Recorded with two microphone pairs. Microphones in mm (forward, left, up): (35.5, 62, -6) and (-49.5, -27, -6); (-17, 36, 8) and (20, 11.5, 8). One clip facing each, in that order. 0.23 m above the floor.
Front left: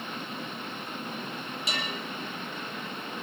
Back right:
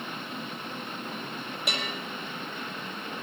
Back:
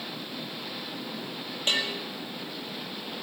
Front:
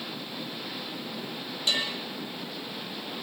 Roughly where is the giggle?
I don't hear a giggle.